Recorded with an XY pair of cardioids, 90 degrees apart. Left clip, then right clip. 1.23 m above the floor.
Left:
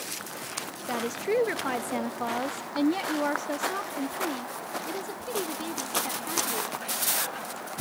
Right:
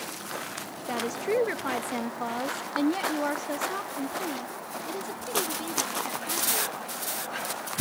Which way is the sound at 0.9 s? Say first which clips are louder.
Even; 5° left.